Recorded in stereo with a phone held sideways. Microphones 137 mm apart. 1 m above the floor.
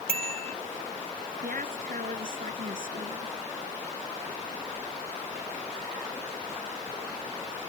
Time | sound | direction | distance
0.1 | a bicycle bell | 45° right (ahead or behind) | ?
1.4 | a woman speaking | 80° right | ?